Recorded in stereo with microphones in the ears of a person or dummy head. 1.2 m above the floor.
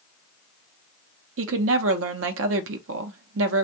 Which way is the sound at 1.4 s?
70° right (ahead or behind).